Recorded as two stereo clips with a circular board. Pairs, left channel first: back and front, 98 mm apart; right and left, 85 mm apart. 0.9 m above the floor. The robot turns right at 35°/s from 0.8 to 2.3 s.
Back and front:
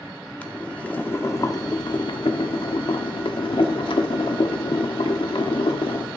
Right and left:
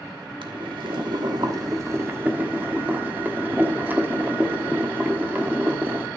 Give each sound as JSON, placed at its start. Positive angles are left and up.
{"t": 0.4, "sound": "boiling", "azimuth_deg": 105, "distance_m": 1.4}